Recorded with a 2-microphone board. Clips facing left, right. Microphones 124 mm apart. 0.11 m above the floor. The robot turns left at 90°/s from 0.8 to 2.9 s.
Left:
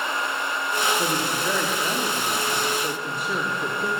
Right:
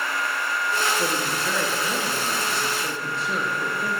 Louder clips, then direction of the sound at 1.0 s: Left 1 dB; 25° left (ahead or behind).